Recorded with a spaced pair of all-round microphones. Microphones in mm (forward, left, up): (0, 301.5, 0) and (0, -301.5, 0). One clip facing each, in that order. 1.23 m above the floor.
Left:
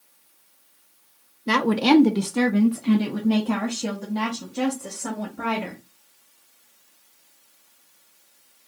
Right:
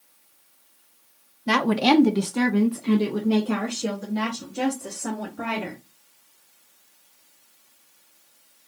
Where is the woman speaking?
20° right (ahead or behind), 0.6 m; by 5.8 s 30° left (ahead or behind), 2 m.